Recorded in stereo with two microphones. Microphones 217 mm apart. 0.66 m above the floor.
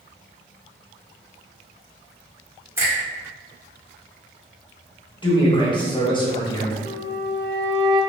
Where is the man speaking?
20° left (ahead or behind), 1.0 m.